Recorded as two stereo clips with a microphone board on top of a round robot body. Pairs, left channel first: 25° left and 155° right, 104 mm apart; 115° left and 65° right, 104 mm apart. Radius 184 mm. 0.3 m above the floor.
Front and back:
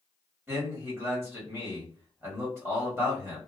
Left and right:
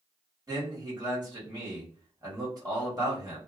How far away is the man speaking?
About 1.7 m.